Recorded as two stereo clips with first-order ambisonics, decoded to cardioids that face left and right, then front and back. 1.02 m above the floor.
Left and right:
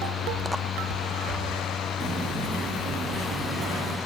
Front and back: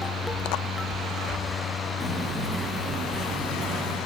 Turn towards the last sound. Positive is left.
turn(degrees=-140)